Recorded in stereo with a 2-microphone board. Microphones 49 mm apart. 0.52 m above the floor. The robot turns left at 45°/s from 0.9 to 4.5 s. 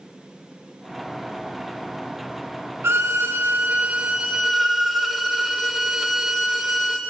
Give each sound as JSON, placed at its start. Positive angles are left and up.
{"t": 2.8, "sound": "a violin", "azimuth_deg": -105, "distance_m": 0.7}